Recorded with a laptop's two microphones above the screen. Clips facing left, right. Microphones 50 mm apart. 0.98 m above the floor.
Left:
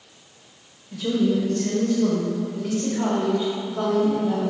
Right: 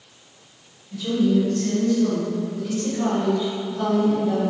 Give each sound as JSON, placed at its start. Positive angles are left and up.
{"t": 0.9, "sound": "a woman speaking", "side_deg": 35, "distance_m": 1.0}